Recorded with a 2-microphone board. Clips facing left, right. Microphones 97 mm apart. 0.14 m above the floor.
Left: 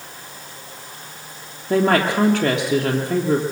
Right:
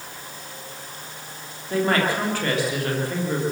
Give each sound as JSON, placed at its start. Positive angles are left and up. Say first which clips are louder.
{"t": 1.7, "sound": "a woman speaking", "louder": "left 4 dB", "side_deg": 65, "distance_m": 3.5}